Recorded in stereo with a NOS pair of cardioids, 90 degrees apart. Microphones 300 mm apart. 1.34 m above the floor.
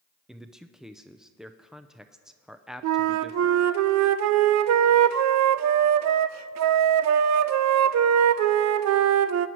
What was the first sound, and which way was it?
A man speaking, straight ahead.